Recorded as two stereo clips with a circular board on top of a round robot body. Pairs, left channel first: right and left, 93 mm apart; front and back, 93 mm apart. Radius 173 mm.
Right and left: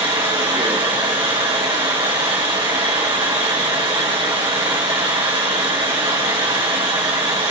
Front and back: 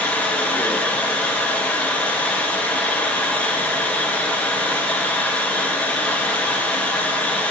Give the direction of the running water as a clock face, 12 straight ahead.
10 o'clock.